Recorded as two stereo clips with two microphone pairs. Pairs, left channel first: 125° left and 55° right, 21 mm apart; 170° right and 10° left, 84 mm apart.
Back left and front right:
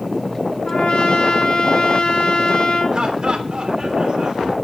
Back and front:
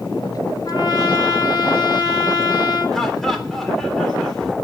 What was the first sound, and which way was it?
A trumpet, 155° left.